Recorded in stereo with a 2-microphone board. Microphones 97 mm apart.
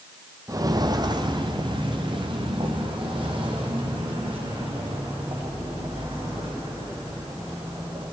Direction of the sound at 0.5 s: 40° right (ahead or behind).